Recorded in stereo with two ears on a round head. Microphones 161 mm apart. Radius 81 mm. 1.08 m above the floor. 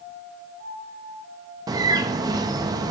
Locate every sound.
1.7 s a bird: 20° right (ahead or behind), 0.6 m